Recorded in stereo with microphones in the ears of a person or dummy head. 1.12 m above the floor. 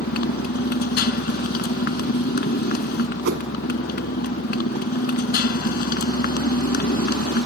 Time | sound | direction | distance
0.0 | a motorcycle | 60° left (ahead or behind) | ?
3.2 | a whoosh | 70° right (ahead or behind) | ?